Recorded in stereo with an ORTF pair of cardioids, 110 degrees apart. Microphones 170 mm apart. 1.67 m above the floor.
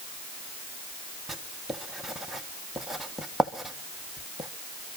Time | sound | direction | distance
1.3 | writing | straight ahead | 1.6 m